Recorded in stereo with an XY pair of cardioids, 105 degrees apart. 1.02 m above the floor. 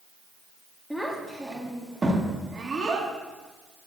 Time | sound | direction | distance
0.9 | a child speaking | straight ahead | 1.6 m